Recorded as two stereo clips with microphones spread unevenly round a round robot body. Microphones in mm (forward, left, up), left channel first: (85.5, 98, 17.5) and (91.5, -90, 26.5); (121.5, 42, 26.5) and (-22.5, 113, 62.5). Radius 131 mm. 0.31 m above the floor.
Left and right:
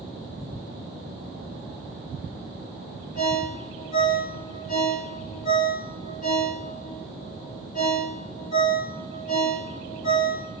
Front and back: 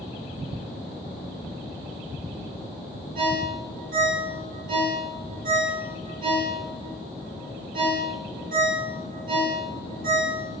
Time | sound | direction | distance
3.1 | a ringtone | 145° left | 1.7 m